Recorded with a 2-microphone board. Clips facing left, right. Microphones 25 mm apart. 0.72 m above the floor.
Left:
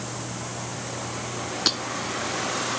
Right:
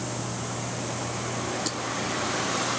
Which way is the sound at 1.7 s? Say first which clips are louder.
Left 8 dB; 45° left (ahead or behind).